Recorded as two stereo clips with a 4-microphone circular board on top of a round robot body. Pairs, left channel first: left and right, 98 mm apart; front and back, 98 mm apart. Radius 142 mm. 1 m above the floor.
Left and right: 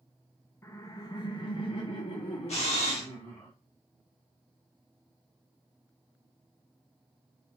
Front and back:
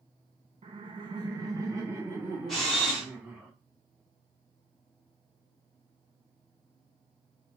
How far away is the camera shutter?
About 0.7 m.